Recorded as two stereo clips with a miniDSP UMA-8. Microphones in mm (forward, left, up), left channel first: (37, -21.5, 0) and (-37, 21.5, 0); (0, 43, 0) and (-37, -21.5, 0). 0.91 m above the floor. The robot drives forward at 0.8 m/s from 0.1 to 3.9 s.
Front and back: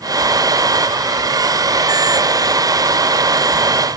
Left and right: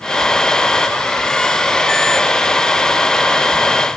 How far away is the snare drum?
No snare drum in this recording.